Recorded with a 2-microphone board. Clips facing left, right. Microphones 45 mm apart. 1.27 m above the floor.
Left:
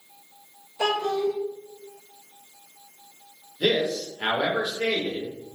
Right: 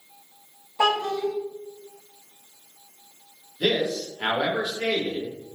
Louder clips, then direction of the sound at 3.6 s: Even; centre (ahead or behind).